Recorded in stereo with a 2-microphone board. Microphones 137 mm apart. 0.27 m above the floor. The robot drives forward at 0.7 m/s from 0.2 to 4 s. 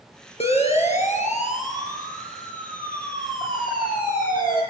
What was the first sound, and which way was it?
A siren, 45° left (ahead or behind).